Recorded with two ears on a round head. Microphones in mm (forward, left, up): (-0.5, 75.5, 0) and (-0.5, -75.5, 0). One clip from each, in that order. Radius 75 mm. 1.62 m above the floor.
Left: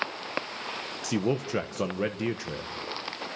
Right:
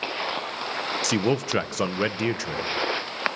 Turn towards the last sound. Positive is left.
turn(degrees=-35)  # may be behind; listen again after turning